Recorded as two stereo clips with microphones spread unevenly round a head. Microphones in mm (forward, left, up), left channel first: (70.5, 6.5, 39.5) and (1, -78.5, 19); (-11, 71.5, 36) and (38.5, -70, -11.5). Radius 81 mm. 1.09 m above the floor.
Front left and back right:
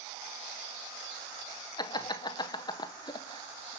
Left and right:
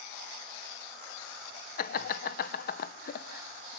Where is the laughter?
100° left, 0.8 m.